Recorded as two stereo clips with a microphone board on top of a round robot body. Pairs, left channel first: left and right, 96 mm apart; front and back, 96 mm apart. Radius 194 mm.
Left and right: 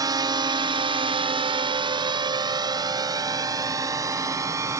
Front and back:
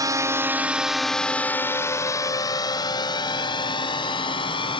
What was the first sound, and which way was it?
A drone, 135° right.